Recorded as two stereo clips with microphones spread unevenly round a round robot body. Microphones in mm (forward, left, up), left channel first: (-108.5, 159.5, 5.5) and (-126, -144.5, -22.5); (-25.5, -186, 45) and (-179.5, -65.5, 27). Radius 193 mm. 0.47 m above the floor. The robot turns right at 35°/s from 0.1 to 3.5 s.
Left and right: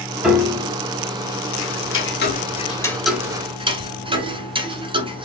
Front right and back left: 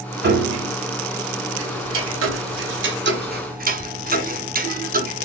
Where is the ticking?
125° left, 1.0 m; by 5.2 s 170° right, 1.0 m.